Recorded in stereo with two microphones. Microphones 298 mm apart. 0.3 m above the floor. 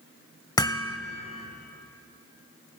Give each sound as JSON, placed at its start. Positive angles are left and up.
{"t": 0.6, "sound": "hammering", "side_deg": 15, "distance_m": 0.9}